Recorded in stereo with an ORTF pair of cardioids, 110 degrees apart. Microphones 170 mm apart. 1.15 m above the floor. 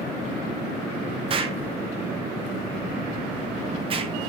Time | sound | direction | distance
1.3 | an explosion | 35° right | 0.5 m